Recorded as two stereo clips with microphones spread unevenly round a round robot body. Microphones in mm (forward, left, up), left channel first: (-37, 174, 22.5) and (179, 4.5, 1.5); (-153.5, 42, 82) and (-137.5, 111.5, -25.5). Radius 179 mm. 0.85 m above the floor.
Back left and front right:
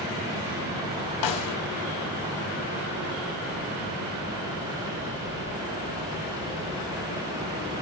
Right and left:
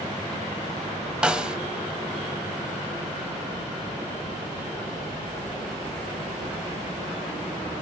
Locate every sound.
1.2 s a snare drum: 165° left, 0.7 m